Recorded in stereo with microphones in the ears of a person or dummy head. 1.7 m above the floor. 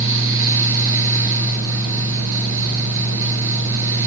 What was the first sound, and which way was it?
A fan, 75° right (ahead or behind).